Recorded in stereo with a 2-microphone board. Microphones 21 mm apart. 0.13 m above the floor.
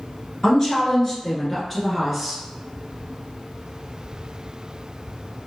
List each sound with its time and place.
0.4 s a woman speaking: 30° left (ahead or behind), 1.9 m; by 2.4 s 5° right (ahead or behind), 1.6 m